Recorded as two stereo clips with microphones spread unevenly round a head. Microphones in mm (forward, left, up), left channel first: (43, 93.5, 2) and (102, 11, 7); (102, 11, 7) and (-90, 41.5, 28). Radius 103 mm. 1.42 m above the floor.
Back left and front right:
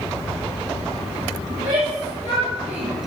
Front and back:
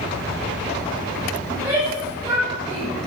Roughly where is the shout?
Behind right.